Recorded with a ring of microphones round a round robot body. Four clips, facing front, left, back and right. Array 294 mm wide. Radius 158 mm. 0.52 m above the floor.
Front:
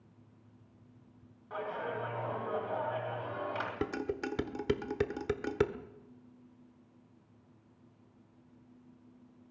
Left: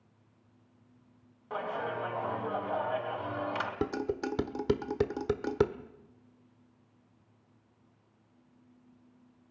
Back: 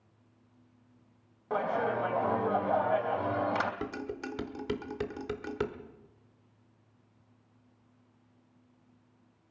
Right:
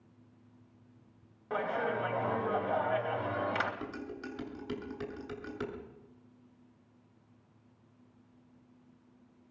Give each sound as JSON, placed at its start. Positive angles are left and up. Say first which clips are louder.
{"t": 1.5, "sound": "a clap", "louder": "right 2 dB, back 8 dB", "azimuth_deg": -165, "distance_m": 3.0}
{"t": 3.8, "sound": "dishes clattering", "louder": "left 9 dB, front 2 dB", "azimuth_deg": 70, "distance_m": 1.2}